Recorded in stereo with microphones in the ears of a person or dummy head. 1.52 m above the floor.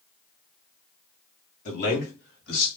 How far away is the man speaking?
About 0.9 m.